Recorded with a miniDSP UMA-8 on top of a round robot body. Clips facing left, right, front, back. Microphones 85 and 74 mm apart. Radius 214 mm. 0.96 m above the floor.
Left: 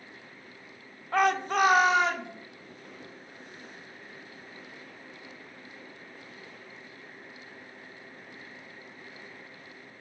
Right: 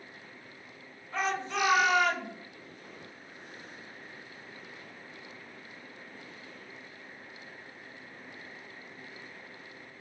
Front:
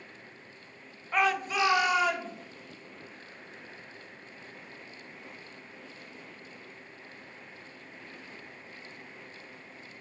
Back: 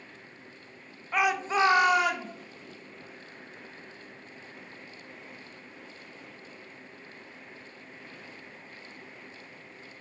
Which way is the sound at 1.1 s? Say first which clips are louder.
Left 7 dB, back 1 dB; 90° left.